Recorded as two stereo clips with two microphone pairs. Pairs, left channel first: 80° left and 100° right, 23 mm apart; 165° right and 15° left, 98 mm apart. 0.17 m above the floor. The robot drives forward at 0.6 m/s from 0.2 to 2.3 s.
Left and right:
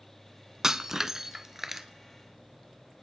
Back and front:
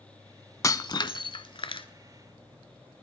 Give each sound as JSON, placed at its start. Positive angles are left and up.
{"t": 0.6, "sound": "breaking glass", "azimuth_deg": -150, "distance_m": 0.5}